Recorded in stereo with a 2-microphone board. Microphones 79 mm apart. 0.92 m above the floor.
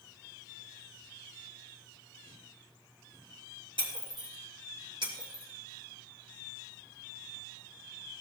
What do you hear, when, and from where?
3.8 s breaking glass: 70° right (ahead or behind), 2 m